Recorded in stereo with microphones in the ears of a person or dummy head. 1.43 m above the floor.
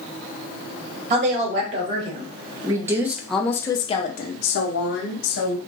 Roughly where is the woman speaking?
Right.